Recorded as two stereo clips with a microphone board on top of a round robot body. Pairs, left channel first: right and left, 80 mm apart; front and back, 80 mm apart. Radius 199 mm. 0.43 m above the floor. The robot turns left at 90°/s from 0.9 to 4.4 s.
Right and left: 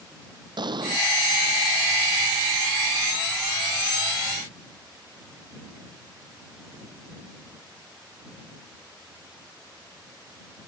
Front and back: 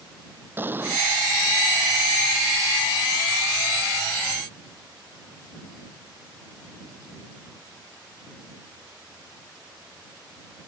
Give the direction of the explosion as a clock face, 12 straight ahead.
8 o'clock.